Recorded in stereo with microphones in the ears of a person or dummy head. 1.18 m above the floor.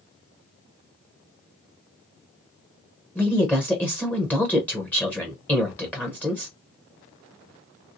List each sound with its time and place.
3.1 s a woman speaking: 10° left (ahead or behind), 0.8 m